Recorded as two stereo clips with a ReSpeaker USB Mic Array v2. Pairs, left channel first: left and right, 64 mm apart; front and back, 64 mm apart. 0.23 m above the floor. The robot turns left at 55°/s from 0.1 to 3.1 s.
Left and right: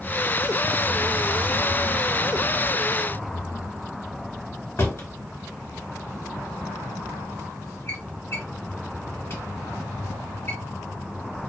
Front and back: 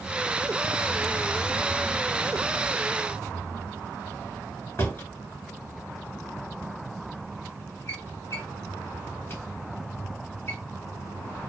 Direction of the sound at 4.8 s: 45° left.